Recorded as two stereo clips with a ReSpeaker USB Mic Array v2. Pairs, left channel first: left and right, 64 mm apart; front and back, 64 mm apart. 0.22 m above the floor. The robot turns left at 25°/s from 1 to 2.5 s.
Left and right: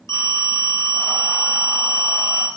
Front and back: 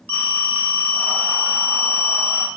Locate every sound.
0.1 s a phone ringing: 60° left, 1.1 m; by 2.5 s 25° left, 1.1 m